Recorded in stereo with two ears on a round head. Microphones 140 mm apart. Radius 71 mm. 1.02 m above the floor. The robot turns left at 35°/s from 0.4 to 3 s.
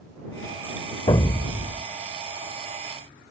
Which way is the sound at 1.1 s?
30° left (ahead or behind).